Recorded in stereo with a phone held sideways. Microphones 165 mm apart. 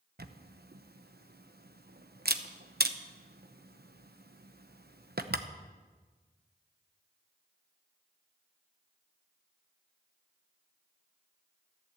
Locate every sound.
0.2 s a camera shutter: 65° right (ahead or behind), 0.9 m